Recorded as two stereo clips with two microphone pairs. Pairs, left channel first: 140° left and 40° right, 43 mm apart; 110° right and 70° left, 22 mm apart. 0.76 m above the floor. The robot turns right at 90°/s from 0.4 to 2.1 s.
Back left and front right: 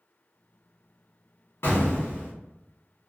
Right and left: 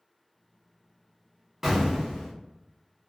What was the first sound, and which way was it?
An explosion, 150° left.